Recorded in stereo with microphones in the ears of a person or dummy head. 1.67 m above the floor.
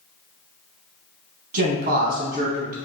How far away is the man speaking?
About 0.9 m.